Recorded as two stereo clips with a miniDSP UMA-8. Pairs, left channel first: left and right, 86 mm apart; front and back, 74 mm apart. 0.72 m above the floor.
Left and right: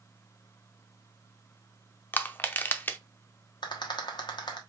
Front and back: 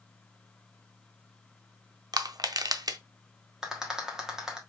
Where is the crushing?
155° left, 0.5 m.